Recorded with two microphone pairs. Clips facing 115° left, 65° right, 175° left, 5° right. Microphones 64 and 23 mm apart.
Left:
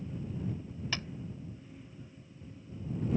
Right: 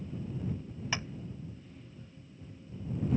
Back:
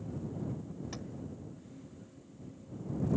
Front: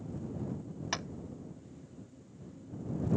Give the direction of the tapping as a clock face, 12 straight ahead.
12 o'clock.